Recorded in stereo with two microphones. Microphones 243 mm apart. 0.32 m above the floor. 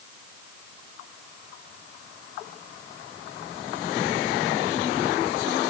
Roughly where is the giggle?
No giggle in this recording.